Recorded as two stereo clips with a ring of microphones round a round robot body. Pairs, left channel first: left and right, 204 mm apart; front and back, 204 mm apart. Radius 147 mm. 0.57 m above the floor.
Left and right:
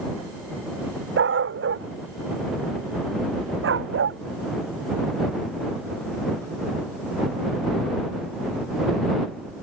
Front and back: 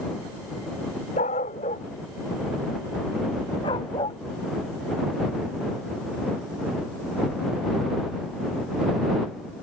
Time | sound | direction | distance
1.2 | a dog barking | 70° right | ?